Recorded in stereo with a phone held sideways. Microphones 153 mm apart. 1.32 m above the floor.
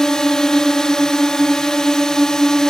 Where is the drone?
5° left (ahead or behind).